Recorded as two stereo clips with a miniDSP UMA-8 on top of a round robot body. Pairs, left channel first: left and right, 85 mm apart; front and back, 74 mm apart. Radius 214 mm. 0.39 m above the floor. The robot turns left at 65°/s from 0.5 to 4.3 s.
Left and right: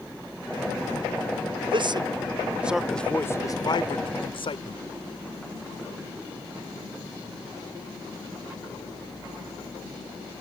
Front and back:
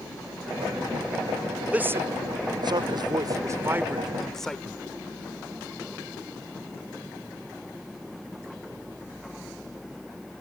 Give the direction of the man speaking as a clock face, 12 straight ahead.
4 o'clock.